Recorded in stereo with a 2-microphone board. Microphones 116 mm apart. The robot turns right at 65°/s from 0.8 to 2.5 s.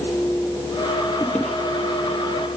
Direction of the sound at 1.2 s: 20° left (ahead or behind).